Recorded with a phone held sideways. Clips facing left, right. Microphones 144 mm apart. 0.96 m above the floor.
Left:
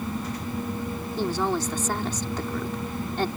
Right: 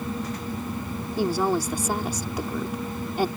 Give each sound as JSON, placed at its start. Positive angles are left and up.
{"t": 1.2, "sound": "a woman speaking", "side_deg": -10}